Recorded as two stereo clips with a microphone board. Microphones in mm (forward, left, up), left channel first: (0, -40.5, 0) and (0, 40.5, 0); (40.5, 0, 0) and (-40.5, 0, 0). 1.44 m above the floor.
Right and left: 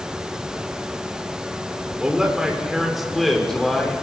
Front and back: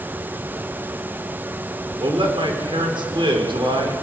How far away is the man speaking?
About 6 m.